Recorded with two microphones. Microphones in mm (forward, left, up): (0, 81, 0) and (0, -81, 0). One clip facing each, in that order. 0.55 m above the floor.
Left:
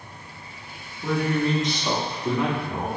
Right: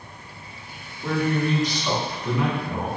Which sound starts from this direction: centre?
A man speaking, at 1.0 s.